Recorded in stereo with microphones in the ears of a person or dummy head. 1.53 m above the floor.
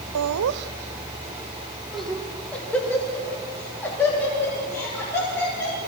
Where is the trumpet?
No trumpet in this recording.